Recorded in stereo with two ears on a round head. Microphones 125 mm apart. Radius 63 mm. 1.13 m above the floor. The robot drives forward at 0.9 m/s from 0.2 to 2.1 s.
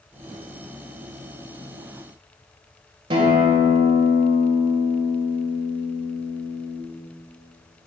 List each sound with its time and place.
3.1 s a guitar: 40° right (ahead or behind), 1.7 m